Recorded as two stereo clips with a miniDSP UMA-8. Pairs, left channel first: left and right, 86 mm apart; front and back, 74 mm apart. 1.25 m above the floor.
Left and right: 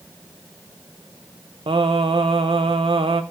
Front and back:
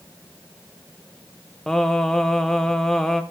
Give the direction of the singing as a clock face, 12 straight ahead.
3 o'clock.